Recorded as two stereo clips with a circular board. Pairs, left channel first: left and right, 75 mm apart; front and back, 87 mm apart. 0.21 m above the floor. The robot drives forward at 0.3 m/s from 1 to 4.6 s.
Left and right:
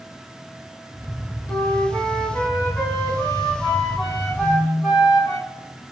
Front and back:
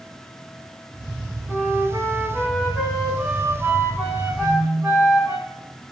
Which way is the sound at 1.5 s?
105° left.